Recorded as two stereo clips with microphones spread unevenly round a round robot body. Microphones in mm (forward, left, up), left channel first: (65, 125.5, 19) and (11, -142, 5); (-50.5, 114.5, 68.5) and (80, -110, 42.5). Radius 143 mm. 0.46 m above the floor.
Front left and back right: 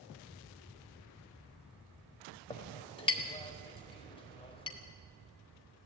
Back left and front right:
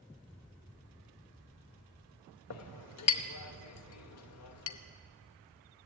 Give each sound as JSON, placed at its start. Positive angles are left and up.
{"t": 2.5, "sound": "a clink", "azimuth_deg": 150, "distance_m": 1.0}